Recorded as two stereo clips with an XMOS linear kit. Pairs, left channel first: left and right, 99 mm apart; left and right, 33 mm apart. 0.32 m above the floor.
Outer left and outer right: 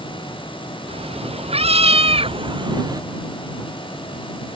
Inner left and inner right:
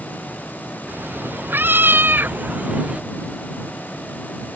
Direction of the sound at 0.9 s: 75° right (ahead or behind).